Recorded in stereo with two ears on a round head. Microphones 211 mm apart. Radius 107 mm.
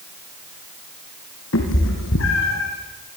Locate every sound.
1.5 s a cat meowing: 55° left (ahead or behind), 5.5 m